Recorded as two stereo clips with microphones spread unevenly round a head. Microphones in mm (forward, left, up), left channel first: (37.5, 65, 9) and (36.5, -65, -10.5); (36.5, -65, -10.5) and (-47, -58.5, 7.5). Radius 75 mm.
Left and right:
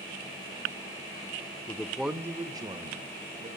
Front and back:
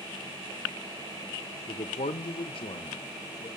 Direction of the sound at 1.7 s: 30° left.